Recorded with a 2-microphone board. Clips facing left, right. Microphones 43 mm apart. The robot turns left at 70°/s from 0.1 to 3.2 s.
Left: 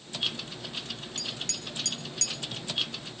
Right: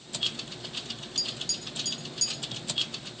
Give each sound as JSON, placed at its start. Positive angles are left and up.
{"t": 1.2, "sound": "tapping", "side_deg": 35, "distance_m": 1.3}